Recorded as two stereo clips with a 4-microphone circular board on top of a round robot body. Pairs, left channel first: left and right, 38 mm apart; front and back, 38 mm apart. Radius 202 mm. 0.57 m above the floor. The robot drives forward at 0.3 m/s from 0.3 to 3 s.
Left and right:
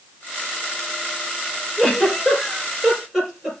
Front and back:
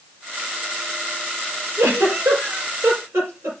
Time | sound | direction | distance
1.8 | a giggle | straight behind | 5.5 m